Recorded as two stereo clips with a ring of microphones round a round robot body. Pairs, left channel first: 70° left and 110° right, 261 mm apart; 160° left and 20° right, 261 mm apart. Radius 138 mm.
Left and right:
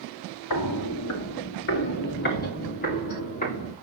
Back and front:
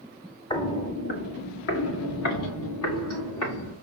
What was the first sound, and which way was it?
Footsteps, 80° left.